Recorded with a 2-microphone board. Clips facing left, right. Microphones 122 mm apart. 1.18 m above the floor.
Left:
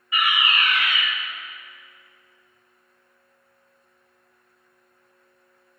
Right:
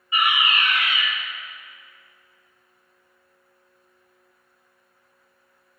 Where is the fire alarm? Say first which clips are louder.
Right 1 dB; 25° right (ahead or behind), 4.5 m.